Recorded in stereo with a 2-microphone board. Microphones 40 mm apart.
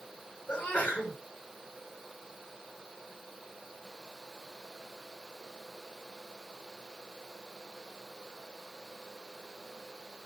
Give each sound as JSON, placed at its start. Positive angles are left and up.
{"t": 0.5, "sound": "a sneeze", "side_deg": 40, "distance_m": 7.0}